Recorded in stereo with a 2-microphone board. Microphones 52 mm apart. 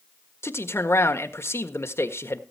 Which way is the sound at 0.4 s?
55° left (ahead or behind).